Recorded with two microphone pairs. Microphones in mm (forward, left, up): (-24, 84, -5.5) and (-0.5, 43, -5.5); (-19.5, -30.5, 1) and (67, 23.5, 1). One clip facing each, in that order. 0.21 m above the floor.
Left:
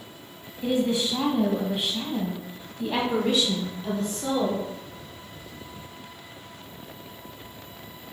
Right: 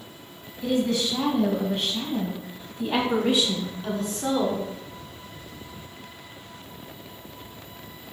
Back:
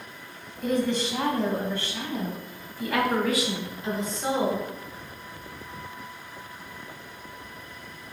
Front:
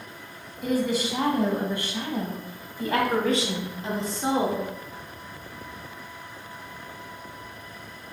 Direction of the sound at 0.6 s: 110° left.